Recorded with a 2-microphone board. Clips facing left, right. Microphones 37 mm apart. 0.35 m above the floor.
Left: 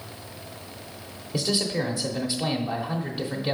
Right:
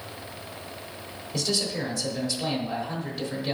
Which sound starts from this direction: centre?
A man speaking, at 1.3 s.